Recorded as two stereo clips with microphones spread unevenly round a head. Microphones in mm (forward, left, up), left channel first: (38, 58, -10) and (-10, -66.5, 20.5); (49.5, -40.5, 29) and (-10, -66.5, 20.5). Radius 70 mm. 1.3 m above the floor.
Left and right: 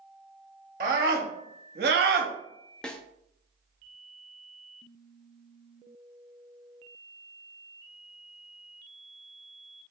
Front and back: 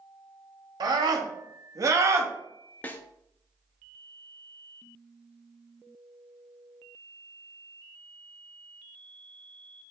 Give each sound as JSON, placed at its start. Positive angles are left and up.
{"t": 0.8, "sound": "a scream", "azimuth_deg": -140, "distance_m": 2.0}
{"t": 2.8, "sound": "a snare drum", "azimuth_deg": -25, "distance_m": 0.9}